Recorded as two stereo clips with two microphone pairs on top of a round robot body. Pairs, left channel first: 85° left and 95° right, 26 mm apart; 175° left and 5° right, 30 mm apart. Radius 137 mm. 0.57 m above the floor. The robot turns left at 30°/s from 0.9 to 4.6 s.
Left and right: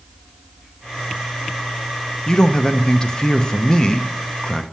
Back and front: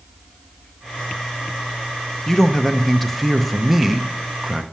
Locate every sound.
2.3 s a man speaking: 115° left, 0.8 m; by 4.6 s 45° left, 0.8 m